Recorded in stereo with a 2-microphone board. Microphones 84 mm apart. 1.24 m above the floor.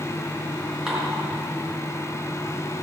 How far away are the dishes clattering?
About 3.5 m.